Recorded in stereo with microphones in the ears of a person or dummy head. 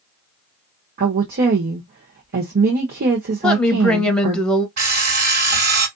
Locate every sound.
1.0 s a woman speaking: 45° right (ahead or behind), 0.9 m
3.4 s a woman speaking: 5° left (ahead or behind), 0.9 m
4.8 s an alarm clock: 40° right (ahead or behind), 3.5 m